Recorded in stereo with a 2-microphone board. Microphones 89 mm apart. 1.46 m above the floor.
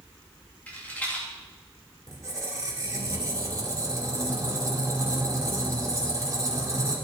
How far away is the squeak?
About 2 m.